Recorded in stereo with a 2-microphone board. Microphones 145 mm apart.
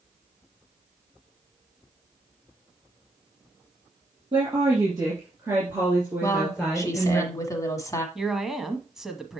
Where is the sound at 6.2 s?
25° left (ahead or behind), 1.4 m.